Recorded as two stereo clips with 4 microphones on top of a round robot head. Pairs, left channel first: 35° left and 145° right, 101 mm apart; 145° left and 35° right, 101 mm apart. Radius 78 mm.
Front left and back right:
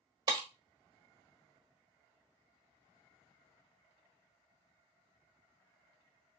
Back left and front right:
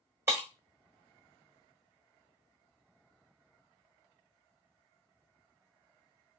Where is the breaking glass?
100° right, 1.2 m.